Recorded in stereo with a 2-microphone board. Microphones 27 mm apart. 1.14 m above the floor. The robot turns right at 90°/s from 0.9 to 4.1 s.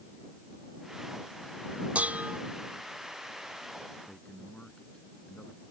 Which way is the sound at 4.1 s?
45° left (ahead or behind).